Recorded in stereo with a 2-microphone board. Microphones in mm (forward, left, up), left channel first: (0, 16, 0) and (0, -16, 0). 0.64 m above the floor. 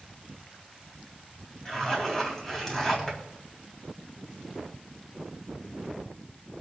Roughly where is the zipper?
Centre.